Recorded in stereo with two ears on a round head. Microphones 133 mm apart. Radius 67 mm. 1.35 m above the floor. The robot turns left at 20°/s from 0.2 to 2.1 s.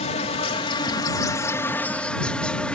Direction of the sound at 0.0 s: 45° left.